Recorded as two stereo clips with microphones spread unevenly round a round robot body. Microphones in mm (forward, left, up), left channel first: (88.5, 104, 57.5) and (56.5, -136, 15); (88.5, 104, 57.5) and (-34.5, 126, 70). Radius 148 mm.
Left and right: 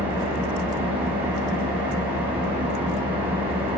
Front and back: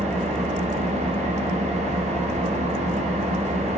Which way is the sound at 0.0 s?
170° right.